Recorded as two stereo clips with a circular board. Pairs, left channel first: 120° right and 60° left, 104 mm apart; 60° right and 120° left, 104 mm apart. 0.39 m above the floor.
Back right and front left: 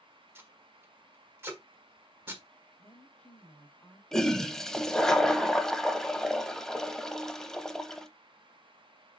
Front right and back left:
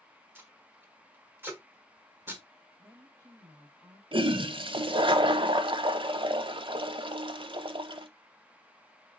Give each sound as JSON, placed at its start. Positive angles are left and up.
{"t": 0.3, "sound": "tape being pulled", "azimuth_deg": 85, "distance_m": 1.2}
{"t": 2.8, "sound": "a woman speaking", "azimuth_deg": 165, "distance_m": 1.5}
{"t": 4.1, "sound": "a toilet flushing", "azimuth_deg": 155, "distance_m": 0.5}